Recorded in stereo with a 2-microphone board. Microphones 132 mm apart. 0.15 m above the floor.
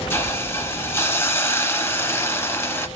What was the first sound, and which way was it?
A hiss, 20° left (ahead or behind).